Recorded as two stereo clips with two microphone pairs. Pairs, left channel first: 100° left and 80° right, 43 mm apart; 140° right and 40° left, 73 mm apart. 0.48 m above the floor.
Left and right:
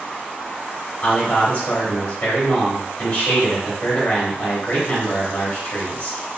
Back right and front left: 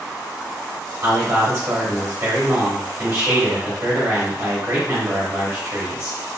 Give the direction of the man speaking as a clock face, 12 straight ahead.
10 o'clock.